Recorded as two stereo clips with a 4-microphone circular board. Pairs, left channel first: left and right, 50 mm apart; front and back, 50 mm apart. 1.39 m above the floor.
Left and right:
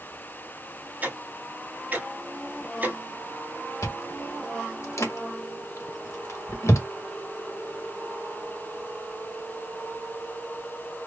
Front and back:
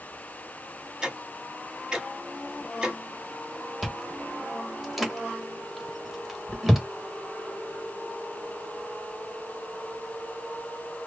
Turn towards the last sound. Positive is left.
turn(degrees=95)